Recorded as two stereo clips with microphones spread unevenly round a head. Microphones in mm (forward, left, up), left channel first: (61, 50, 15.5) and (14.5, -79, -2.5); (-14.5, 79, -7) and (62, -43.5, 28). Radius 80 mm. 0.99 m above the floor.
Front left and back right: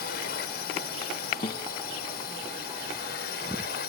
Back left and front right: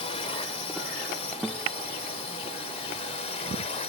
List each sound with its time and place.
0.0 s a drone: 75° left
1.4 s a guitar: 25° left